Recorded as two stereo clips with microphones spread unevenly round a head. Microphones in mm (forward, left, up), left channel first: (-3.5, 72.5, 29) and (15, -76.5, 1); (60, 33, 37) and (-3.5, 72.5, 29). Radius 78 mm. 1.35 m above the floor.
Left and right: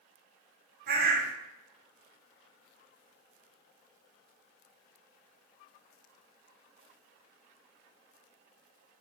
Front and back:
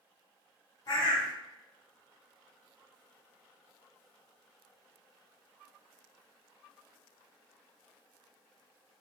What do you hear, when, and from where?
0.9 s a bird: 75° right, 0.8 m